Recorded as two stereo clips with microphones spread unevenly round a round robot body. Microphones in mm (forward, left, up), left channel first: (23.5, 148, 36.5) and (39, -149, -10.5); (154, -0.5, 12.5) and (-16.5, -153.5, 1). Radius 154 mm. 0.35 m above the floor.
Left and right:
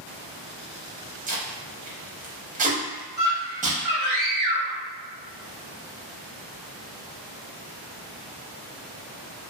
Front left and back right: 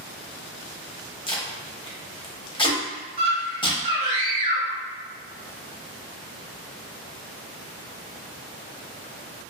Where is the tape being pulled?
30° right, 0.8 m.